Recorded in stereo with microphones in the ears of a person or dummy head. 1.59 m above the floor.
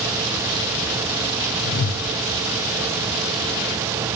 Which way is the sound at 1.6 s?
65° left (ahead or behind).